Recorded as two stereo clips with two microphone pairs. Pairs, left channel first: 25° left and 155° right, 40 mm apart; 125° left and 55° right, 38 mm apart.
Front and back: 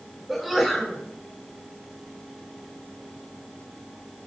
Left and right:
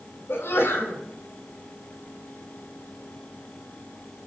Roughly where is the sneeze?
Behind left.